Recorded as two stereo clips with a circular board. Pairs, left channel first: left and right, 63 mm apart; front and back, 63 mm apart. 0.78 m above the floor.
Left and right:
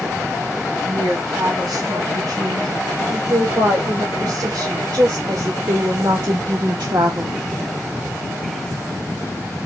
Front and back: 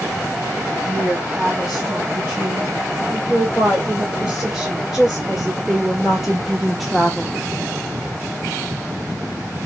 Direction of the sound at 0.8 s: 105° right.